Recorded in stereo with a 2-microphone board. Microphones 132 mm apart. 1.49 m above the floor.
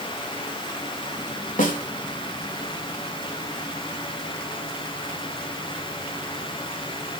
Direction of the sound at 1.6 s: 75° left (ahead or behind).